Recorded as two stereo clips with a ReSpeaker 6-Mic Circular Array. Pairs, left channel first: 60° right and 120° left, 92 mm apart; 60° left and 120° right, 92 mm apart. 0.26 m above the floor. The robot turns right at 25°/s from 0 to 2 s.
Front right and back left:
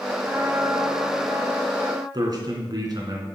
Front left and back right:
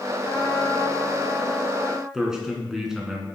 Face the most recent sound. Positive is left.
turn(degrees=160)